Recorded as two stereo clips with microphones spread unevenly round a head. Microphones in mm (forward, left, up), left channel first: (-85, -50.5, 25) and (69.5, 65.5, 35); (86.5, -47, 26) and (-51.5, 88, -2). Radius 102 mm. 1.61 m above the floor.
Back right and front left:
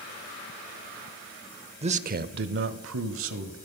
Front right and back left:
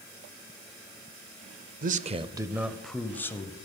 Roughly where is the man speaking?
Left.